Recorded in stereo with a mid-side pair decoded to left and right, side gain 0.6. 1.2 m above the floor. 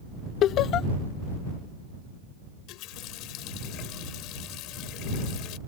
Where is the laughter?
55° left.